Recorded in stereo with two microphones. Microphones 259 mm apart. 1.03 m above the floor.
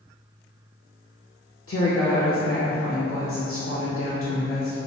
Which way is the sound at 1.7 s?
55° left (ahead or behind).